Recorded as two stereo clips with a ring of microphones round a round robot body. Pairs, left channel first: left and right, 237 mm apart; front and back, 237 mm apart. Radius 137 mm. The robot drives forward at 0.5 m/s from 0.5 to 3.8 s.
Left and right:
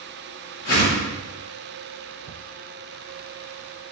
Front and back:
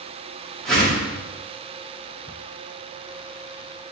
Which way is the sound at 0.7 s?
90° left.